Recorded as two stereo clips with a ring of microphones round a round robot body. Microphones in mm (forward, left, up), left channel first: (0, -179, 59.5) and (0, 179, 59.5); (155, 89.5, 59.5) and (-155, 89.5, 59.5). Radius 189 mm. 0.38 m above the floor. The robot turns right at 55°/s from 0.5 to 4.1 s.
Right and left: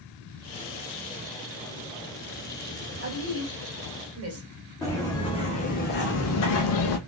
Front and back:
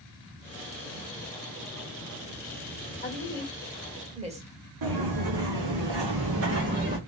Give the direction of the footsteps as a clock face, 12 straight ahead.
6 o'clock.